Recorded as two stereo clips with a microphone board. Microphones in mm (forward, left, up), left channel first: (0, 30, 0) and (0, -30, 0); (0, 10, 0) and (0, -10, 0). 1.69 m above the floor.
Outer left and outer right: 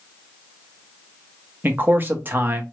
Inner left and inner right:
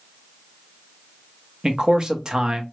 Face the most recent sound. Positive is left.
turn(degrees=-35)  # may be behind; listen again after turning